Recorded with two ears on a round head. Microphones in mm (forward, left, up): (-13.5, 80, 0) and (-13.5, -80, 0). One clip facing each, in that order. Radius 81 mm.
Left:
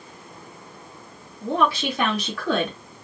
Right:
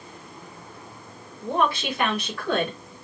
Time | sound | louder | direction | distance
1.4 | a woman speaking | left 2 dB | 55° left (ahead or behind) | 2.5 m